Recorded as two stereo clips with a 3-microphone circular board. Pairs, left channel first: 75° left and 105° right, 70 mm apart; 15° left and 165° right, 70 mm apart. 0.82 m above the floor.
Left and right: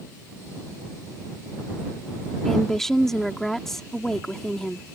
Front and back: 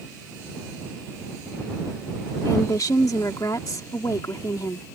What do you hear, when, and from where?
2.5 s a woman speaking: 10° right